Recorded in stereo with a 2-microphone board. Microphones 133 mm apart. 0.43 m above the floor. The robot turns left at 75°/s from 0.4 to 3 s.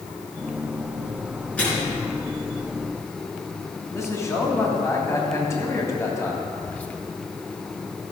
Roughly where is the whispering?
Centre.